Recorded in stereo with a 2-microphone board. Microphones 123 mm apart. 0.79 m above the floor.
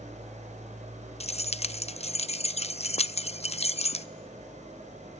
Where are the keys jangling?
60° left (ahead or behind), 0.6 m.